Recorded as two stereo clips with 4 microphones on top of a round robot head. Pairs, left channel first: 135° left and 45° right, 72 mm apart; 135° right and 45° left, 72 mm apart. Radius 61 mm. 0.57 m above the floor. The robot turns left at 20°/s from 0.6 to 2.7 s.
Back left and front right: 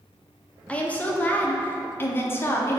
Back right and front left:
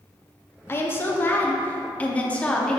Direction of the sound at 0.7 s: 165° right.